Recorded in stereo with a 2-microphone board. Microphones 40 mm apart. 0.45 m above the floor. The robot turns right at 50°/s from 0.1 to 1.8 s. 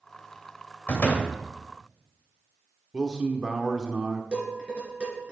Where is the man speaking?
15° right (ahead or behind), 0.8 m.